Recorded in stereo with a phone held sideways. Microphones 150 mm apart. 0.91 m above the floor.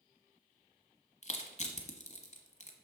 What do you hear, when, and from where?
1.2 s crushing: 50° left (ahead or behind), 1.2 m